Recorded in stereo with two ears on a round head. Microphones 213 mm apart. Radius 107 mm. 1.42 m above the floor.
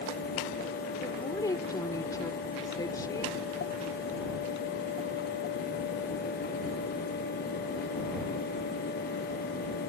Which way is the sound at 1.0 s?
15° left (ahead or behind).